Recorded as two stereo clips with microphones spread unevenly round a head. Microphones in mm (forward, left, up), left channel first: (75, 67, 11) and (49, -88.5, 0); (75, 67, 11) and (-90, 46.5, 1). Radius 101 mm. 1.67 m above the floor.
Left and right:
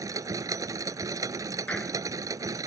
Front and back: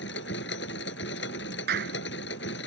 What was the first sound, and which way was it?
A machine running, 30° right.